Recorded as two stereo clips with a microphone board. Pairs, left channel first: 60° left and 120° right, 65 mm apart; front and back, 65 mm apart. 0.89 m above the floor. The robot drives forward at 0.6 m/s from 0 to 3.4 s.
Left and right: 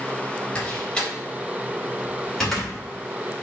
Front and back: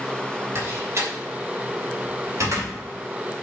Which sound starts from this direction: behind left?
A door slam, at 0.6 s.